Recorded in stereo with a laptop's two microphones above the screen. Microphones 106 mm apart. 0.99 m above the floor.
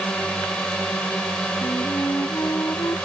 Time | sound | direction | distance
0.0 | a drone | 10° left (ahead or behind) | ?
1.6 | a flute | 30° left (ahead or behind) | ?